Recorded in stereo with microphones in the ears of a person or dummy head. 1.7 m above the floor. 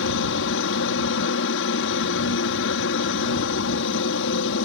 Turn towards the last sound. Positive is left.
turn(degrees=65)  # may be behind; listen again after turning